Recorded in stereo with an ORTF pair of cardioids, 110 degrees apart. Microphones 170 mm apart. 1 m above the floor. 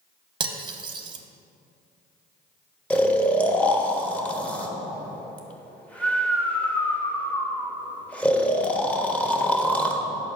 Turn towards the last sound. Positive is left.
turn(degrees=10)